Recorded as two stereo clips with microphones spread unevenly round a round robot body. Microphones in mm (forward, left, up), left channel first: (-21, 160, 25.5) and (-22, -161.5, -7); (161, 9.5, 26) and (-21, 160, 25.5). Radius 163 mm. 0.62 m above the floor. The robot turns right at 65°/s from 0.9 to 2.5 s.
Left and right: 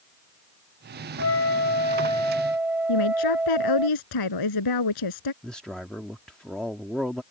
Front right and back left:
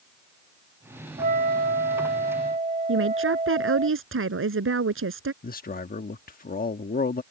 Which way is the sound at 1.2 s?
110° left.